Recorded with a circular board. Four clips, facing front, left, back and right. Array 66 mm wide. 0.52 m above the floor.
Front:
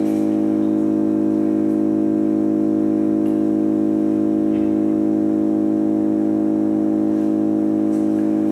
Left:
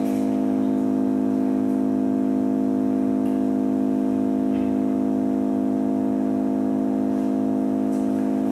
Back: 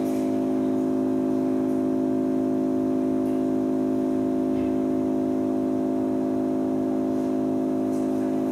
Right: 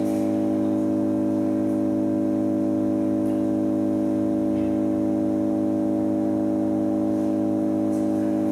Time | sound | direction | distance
0.0 | an engine running | 35° left | 4 m